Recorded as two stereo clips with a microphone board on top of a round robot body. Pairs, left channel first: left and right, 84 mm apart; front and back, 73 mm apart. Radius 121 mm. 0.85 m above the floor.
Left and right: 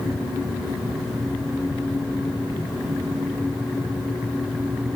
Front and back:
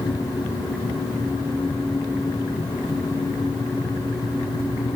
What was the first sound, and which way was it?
Only background noise.